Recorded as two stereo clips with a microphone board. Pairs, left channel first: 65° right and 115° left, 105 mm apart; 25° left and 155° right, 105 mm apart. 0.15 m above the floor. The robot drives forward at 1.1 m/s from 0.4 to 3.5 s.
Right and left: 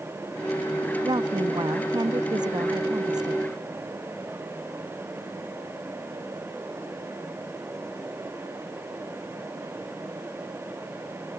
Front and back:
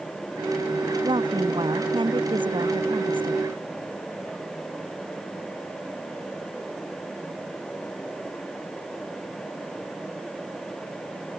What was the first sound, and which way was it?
A woman speaking, 160° left.